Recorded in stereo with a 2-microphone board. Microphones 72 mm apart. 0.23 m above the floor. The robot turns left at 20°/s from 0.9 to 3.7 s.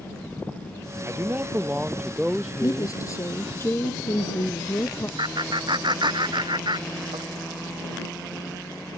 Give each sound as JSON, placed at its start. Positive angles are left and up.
{"t": 1.1, "sound": "a man speaking", "azimuth_deg": -145}
{"t": 2.6, "sound": "a woman speaking", "side_deg": 50}
{"t": 5.2, "sound": "laughter", "side_deg": -75}